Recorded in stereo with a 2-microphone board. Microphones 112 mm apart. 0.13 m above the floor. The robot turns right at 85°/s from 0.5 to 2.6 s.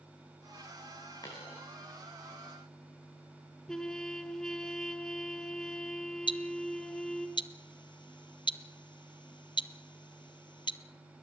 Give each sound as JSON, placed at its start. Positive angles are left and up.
{"t": 1.2, "sound": "a dropped coin", "side_deg": 35, "distance_m": 6.0}
{"t": 3.7, "sound": "a trumpet", "side_deg": 5, "distance_m": 1.4}
{"t": 6.3, "sound": "ticking", "side_deg": 45, "distance_m": 0.6}